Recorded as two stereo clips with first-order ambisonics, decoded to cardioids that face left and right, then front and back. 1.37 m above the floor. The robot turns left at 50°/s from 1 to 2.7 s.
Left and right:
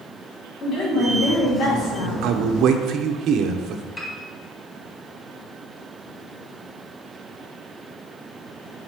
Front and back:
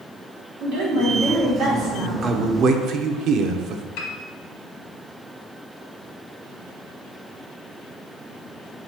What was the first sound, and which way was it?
A woman speaking, 165° left.